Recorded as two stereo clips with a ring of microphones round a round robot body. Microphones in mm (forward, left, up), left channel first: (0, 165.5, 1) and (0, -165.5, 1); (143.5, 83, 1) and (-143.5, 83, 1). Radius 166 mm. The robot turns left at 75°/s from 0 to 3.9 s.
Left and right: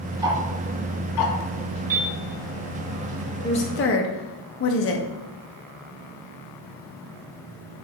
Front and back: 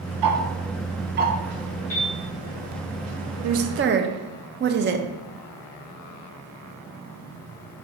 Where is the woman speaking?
170° left, 0.5 m; by 5.1 s 135° left, 0.5 m.